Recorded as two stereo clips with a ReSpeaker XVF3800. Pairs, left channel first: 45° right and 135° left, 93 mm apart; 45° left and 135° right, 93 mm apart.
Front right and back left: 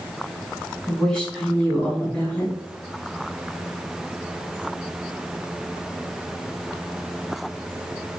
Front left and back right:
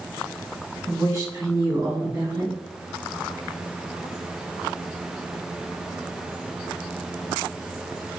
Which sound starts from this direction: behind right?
A woman speaking, at 0.9 s.